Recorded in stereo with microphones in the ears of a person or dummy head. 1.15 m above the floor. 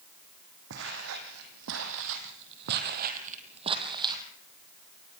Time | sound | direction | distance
0.7 | footsteps | 65° right (ahead or behind) | 4.5 m